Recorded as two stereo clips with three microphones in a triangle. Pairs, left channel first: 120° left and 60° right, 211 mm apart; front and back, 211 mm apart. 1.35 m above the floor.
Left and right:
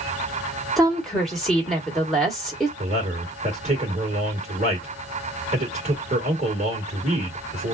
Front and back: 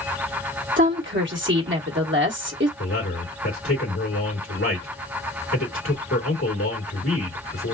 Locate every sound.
0.8 s a woman speaking: 150° right, 1.2 m
2.8 s a man speaking: 5° right, 1.8 m